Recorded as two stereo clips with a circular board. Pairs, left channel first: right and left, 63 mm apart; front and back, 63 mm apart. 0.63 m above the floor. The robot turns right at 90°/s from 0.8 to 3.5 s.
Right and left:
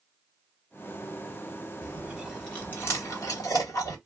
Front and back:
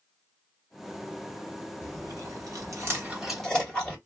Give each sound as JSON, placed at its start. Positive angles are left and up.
{"t": 1.8, "sound": "chewing", "azimuth_deg": 130, "distance_m": 1.7}